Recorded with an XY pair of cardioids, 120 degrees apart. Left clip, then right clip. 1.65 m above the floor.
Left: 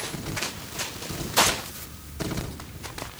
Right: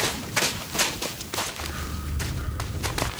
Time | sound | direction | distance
1.6 | a dog barking | 70° right | ?